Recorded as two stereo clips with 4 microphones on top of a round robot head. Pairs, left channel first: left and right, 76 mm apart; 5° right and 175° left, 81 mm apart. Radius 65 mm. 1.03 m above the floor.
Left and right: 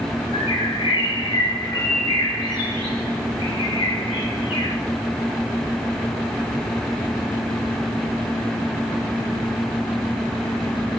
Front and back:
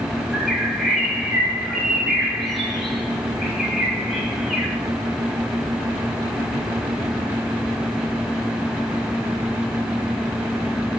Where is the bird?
85° left, 3.5 m.